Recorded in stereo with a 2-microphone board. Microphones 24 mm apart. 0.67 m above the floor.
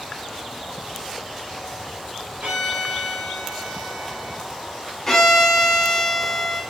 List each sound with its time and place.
2.4 s a violin: 60° right (ahead or behind), 1.1 m
5.1 s a violin: 25° left (ahead or behind), 0.8 m